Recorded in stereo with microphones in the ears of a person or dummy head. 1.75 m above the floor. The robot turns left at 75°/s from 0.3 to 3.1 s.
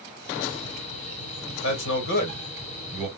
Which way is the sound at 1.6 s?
70° left (ahead or behind).